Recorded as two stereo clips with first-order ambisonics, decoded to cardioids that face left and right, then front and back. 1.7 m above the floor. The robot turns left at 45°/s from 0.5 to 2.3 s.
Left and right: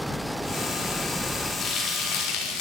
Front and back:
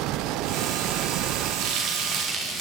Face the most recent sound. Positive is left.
turn(degrees=120)